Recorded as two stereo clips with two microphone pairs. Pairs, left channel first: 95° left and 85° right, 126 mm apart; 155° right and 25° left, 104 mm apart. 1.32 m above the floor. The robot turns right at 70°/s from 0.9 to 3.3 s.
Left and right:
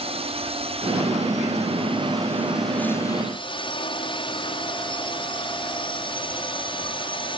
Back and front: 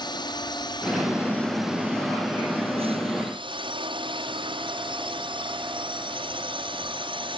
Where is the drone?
115° right; by 7.4 s 50° left.